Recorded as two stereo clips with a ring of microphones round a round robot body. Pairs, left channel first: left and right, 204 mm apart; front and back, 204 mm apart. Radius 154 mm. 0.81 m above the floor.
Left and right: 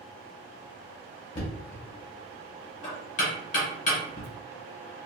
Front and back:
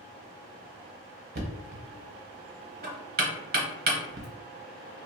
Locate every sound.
1.4 s knocking: 145° left, 0.9 m